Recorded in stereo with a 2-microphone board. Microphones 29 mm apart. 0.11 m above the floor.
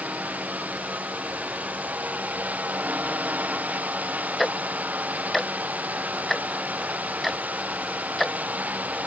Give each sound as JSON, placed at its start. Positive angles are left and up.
{"t": 0.0, "sound": "a drone", "side_deg": -70}
{"t": 4.4, "sound": "ticking", "side_deg": 5}